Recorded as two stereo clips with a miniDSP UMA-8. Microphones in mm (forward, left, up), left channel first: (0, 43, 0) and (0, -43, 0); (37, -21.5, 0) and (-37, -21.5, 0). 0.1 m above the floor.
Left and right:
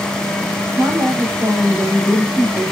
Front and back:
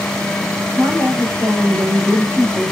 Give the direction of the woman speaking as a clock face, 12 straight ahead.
4 o'clock.